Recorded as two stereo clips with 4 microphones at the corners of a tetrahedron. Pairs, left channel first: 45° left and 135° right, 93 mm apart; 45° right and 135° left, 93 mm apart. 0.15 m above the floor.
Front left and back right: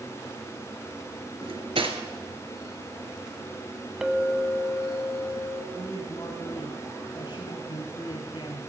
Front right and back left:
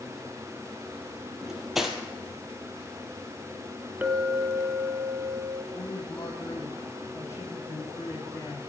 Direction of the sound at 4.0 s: 155° left.